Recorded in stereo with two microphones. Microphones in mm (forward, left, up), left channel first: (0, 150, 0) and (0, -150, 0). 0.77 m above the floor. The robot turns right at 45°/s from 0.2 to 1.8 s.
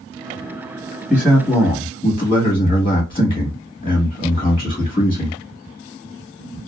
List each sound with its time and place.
1.1 s a man speaking: 10° right, 1.1 m; by 5.4 s 20° left, 1.1 m